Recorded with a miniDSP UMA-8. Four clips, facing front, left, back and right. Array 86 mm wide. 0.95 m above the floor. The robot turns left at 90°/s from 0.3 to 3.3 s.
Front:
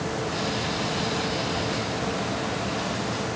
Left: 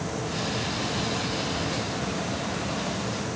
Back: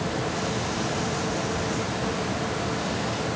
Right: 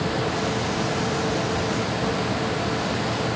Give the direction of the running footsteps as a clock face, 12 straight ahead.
I don't hear running footsteps.